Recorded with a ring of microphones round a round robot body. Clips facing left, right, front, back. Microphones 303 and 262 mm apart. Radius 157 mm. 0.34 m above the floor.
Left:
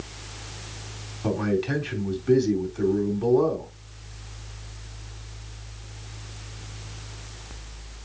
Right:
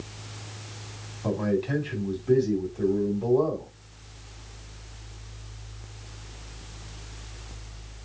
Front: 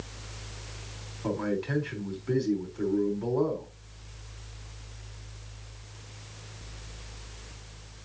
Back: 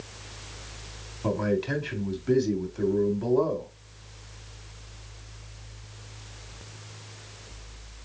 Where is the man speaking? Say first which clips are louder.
Left 1 dB, back 3 dB; 145° left, 3 m.